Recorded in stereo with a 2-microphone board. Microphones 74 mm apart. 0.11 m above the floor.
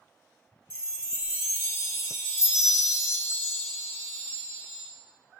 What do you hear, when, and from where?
0.7 s a chime: 35° left (ahead or behind), 0.9 m